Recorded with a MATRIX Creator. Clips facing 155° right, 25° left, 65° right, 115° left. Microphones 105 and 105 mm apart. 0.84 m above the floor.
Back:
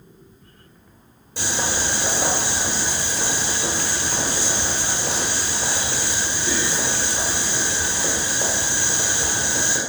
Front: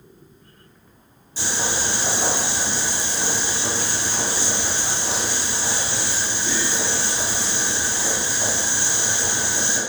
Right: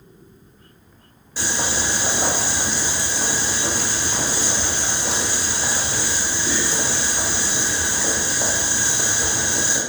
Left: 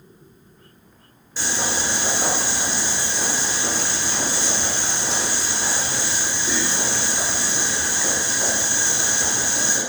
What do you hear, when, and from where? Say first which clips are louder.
1.4 s boiling: back 1 dB, right 1 dB; 155° right, 1.7 m